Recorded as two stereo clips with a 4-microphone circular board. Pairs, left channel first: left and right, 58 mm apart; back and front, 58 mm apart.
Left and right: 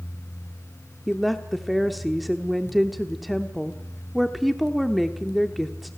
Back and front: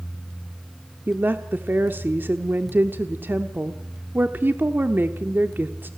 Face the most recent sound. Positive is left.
turn(degrees=0)